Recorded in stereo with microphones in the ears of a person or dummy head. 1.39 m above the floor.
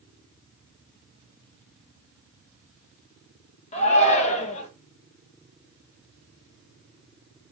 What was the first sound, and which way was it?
A shout, 30° left (ahead or behind).